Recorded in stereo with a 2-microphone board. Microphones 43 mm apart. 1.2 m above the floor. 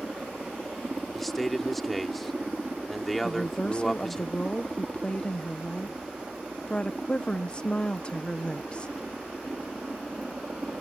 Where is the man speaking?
Centre (ahead or behind).